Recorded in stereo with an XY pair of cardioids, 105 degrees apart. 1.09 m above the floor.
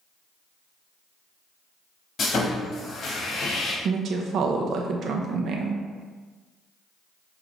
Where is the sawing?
50° left, 1.2 m.